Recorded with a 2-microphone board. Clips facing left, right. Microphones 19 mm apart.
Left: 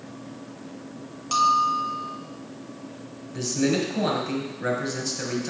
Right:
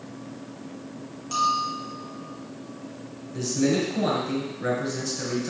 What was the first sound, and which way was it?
A bell, 30° left (ahead or behind).